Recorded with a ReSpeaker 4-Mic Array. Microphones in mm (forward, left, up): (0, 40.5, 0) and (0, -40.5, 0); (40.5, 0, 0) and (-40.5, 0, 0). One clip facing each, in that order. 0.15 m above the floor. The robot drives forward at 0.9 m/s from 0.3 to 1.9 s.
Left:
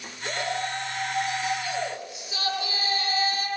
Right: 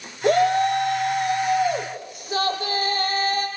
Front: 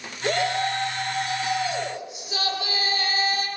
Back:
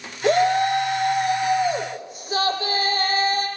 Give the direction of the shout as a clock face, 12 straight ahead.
4 o'clock.